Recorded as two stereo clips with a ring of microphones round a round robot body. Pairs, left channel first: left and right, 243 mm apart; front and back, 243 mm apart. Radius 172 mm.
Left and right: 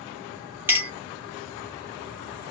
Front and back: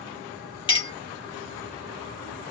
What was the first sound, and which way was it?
A clink, 25° right.